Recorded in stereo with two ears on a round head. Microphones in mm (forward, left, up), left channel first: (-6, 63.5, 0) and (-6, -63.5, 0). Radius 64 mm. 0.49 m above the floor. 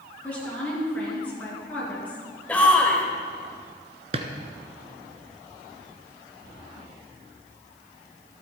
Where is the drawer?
40° right (ahead or behind), 1.4 m.